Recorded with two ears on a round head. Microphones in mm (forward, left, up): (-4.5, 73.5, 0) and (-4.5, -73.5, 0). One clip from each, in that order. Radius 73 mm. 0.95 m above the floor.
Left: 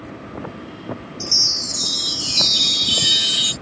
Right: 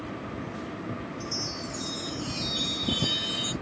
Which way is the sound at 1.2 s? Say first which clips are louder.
Left 18 dB; 75° left (ahead or behind).